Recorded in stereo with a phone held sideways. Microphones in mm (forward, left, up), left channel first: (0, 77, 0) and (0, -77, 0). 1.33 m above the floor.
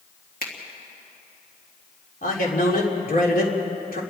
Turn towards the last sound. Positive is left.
turn(degrees=65)  # may be behind; listen again after turning